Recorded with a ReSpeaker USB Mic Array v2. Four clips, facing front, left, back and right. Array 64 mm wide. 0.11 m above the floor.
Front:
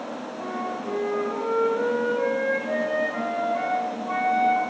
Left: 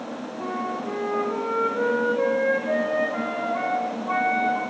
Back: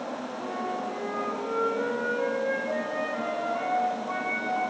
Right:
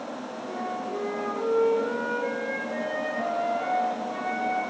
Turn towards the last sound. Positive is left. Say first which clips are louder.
# left 4 dB, front 2 dB
turn(degrees=75)